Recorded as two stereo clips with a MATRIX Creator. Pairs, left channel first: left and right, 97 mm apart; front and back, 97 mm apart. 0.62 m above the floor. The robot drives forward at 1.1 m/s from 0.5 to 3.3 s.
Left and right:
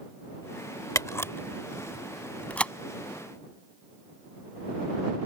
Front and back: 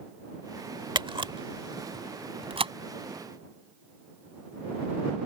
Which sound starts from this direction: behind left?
A camera shutter, at 0.9 s.